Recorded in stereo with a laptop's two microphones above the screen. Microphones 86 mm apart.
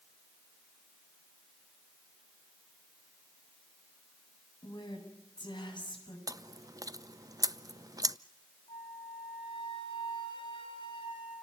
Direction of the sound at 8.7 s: 85° left.